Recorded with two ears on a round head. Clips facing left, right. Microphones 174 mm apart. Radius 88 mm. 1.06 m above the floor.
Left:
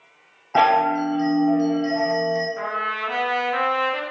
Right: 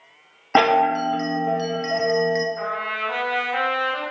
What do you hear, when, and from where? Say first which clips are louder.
0.6 s a chime: right 1 dB; 70° right (ahead or behind), 0.6 m
2.6 s a trumpet: right 1 dB; 55° left (ahead or behind), 0.8 m